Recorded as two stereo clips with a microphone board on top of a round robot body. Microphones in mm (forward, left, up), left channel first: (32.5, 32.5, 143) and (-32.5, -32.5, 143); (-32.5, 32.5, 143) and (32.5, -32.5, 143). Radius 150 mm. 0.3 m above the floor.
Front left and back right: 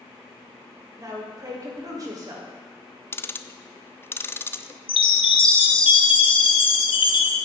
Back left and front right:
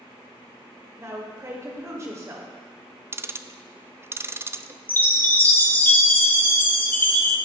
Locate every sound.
1.0 s a woman speaking: 95° right, 2.5 m
3.1 s ticking: straight ahead, 0.5 m
4.9 s a chime: 65° left, 1.1 m